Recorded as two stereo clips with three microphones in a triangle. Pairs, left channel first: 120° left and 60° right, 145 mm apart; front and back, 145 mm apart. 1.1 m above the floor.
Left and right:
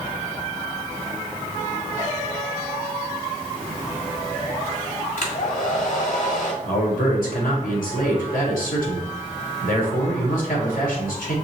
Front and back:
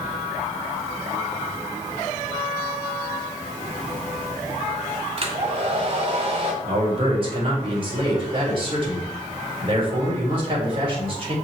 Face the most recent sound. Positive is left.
turn(degrees=130)